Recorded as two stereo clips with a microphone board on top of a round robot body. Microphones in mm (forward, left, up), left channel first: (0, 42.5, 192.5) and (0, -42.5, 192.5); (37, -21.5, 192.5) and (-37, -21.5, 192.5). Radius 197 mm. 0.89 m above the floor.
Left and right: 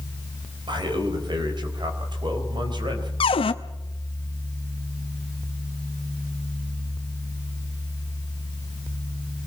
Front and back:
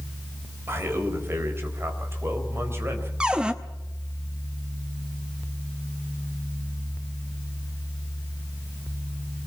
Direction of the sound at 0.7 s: 120° right.